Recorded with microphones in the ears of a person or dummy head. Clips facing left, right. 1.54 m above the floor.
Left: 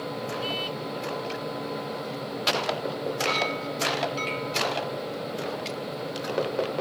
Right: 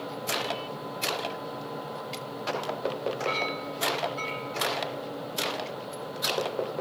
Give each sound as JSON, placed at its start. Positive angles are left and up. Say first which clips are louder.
{"t": 3.3, "sound": "a clink", "louder": "left 3 dB", "side_deg": 45, "distance_m": 5.5}